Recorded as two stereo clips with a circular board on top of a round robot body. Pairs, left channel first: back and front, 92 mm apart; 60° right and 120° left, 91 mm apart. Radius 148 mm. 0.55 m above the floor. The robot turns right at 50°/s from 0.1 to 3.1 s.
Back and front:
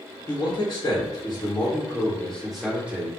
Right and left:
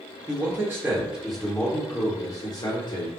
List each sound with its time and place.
0.3 s a man speaking: 165° left, 1.3 m; by 3.1 s 55° right, 1.3 m